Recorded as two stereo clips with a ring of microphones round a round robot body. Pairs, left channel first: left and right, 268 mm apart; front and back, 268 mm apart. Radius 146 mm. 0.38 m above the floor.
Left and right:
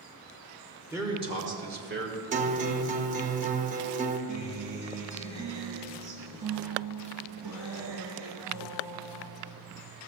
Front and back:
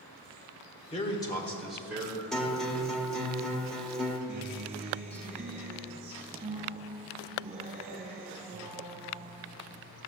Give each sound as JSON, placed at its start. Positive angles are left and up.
{"t": 0.9, "sound": "a man speaking", "azimuth_deg": -20, "distance_m": 0.9}
{"t": 2.3, "sound": "a guitar", "azimuth_deg": -85, "distance_m": 0.5}
{"t": 4.3, "sound": "a guitar", "azimuth_deg": -115, "distance_m": 1.2}